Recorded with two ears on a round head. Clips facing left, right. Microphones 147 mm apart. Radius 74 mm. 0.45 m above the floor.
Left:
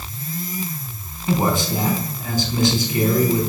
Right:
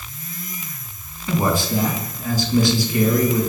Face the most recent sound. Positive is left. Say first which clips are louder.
# even
turn(degrees=20)  # may be behind; listen again after turning